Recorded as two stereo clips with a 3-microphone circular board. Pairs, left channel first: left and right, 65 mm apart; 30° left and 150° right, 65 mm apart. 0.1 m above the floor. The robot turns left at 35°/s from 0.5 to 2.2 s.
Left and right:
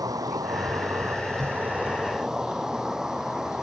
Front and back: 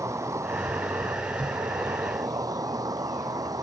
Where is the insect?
110° right; by 3.6 s 170° right.